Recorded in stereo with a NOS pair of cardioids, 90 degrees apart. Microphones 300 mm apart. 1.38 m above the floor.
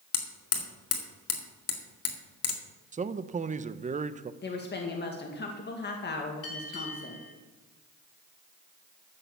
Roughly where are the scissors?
No scissors in this recording.